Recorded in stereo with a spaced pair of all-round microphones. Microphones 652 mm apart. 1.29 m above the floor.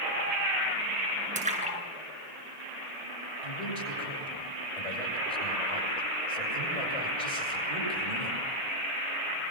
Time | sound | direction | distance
1.4 | a splash | 10° right (ahead or behind) | 7.5 m
3.4 | a man speaking | 65° left (ahead or behind) | 8.5 m